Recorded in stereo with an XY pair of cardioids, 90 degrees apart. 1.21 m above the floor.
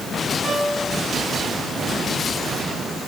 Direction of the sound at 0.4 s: 40° right.